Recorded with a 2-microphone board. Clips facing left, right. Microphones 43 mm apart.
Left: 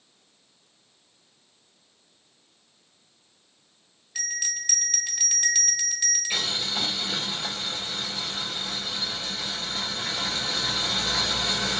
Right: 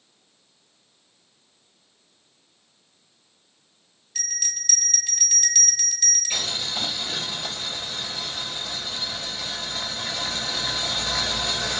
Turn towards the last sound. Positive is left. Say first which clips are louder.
# even
turn(degrees=15)  # may be behind; listen again after turning